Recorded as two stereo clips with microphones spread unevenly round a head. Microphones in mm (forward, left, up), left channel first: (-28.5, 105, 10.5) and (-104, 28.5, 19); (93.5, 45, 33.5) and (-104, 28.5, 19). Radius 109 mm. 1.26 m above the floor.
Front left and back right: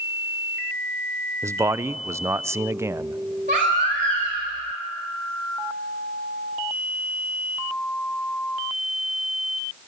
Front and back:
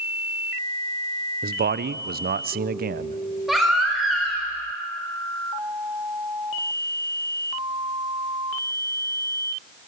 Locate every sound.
1.4 s a man speaking: 160° left, 0.7 m
3.5 s a baby crying: 85° right, 4 m